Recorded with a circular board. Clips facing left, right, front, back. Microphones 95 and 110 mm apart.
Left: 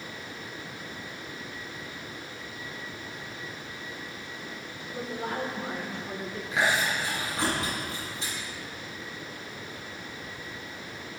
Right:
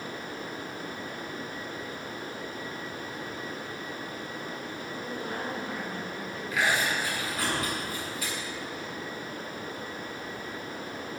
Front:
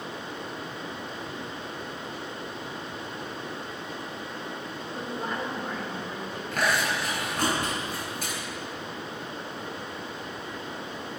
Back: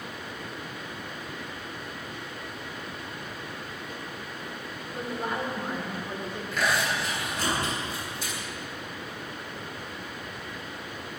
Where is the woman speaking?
100° left, 4.5 m; by 6.4 s 120° left, 4.5 m.